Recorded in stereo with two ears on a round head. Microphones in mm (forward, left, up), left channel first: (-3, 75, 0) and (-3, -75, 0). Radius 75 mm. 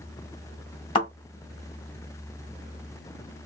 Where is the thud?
30° left (ahead or behind), 2.5 m.